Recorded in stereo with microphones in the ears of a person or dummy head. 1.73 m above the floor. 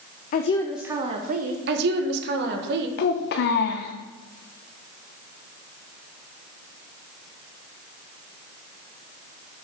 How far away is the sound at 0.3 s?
About 0.6 m.